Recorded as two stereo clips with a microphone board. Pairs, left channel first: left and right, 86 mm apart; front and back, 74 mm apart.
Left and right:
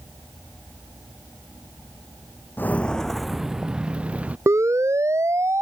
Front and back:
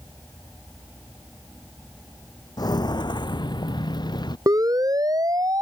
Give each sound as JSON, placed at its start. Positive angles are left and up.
{"t": 2.6, "sound": "footsteps", "azimuth_deg": 25}
{"t": 4.5, "sound": "a siren", "azimuth_deg": -145}